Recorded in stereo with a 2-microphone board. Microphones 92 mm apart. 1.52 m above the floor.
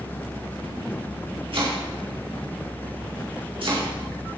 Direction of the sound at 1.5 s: 70° right (ahead or behind).